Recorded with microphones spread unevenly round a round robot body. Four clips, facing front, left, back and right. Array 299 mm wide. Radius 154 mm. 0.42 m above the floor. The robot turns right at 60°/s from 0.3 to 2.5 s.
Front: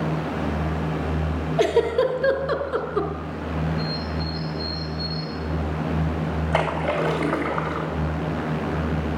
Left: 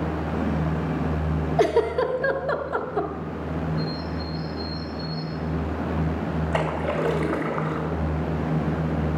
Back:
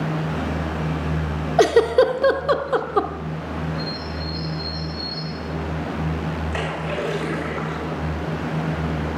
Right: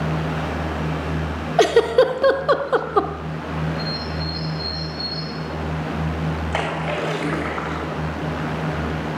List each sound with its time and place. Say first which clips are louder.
1.6 s a giggle: right 6 dB, back 5 dB; straight behind, 0.6 m; by 3.1 s 125° right, 0.6 m
3.8 s a bird: right 1 dB, front 1 dB; 90° right, 4.5 m
6.5 s a splash: even, front 7 dB; straight ahead, 2 m